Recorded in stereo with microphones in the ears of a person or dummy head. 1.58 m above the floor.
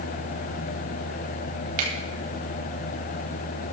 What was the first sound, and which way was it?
A finger snap, 50° right (ahead or behind).